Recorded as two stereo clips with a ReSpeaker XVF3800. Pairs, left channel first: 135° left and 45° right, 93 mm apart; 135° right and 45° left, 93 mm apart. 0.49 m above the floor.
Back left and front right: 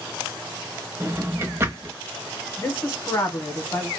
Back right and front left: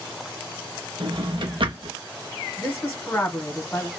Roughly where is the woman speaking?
Behind.